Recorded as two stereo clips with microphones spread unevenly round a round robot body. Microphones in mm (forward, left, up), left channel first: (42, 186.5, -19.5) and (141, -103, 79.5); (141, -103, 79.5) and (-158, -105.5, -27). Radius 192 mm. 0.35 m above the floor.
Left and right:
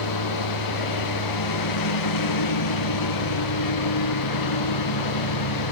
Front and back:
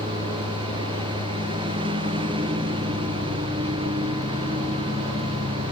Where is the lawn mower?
105° left.